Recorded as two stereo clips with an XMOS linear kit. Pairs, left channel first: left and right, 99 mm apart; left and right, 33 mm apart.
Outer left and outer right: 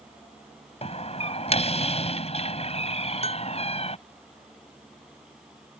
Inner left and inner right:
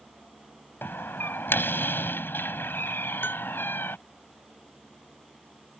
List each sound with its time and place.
0.8 s a door slam: 85° left
3.2 s a bell: 85° left